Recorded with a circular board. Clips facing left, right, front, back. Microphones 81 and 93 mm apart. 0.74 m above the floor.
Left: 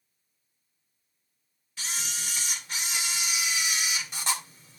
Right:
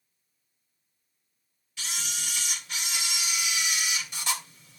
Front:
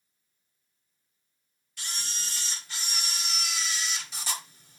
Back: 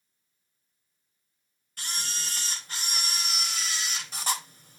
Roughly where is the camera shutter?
Behind left.